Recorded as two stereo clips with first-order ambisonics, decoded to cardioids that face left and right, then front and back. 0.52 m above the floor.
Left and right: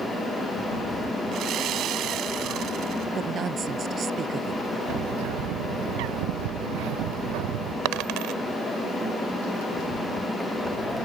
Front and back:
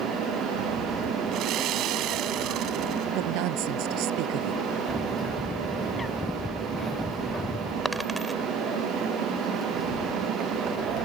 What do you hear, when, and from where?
1.3 s sawing: 140° right
3.1 s a woman speaking: 155° right
4.9 s a bird: 80° right
7.8 s a dropped coin: 100° right